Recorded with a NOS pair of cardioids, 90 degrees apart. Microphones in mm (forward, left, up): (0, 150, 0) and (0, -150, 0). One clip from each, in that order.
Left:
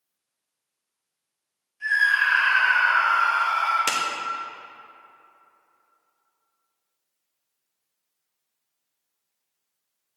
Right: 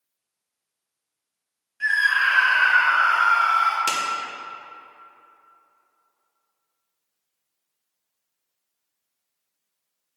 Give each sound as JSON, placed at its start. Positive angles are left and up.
{"t": 1.8, "sound": "a scream", "azimuth_deg": -50, "distance_m": 1.0}
{"t": 3.9, "sound": "a clap", "azimuth_deg": 15, "distance_m": 1.3}